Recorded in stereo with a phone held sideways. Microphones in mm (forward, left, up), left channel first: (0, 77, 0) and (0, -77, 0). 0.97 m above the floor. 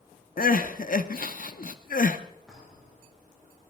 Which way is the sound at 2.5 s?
5° right (ahead or behind).